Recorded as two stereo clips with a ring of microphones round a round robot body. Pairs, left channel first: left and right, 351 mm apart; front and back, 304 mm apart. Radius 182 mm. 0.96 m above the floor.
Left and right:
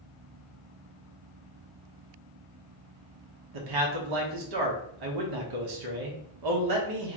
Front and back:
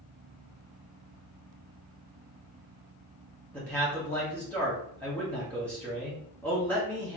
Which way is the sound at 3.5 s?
85° right.